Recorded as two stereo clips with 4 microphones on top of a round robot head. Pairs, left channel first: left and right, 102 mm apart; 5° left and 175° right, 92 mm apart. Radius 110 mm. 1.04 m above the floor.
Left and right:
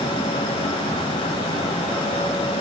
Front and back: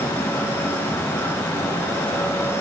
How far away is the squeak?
No squeak in this recording.